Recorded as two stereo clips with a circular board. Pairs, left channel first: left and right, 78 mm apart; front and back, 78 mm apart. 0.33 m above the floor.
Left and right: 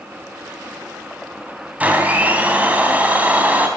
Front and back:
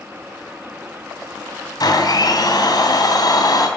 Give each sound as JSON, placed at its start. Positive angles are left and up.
{"t": 1.8, "sound": "a blender", "azimuth_deg": -20, "distance_m": 3.0}